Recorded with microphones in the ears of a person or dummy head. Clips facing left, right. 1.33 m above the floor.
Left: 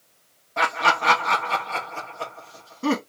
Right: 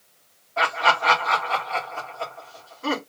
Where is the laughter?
55° left (ahead or behind), 2.5 m.